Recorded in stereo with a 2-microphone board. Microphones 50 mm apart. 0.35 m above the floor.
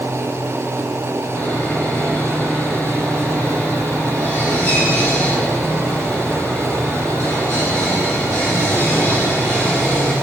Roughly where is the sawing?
Left.